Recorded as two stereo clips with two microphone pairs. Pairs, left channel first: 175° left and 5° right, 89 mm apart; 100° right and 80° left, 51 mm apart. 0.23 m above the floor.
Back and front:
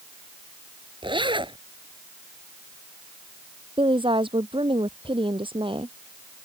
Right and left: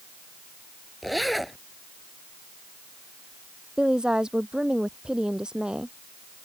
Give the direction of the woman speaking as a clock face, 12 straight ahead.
12 o'clock.